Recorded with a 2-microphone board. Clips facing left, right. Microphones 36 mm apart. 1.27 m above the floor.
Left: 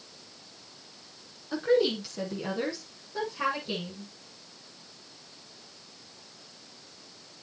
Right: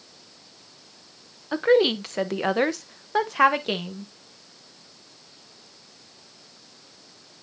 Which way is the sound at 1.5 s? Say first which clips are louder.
Right 6 dB; 40° right (ahead or behind).